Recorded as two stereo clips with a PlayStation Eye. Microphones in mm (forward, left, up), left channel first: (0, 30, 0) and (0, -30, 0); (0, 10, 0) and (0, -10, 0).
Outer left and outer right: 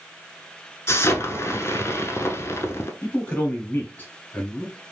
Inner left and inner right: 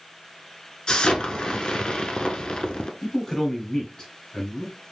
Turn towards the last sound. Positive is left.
turn(degrees=30)  # may be behind; listen again after turning